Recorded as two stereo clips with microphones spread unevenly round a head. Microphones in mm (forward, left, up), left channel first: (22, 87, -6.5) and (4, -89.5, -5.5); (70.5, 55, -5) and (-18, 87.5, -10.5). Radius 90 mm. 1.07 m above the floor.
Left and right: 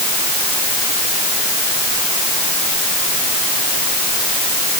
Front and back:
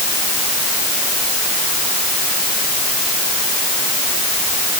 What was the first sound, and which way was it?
Only background noise.